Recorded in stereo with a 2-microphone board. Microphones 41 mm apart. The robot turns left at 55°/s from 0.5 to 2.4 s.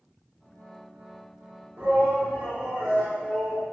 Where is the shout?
45° right, 1.2 m; by 3.6 s 80° right, 1.2 m.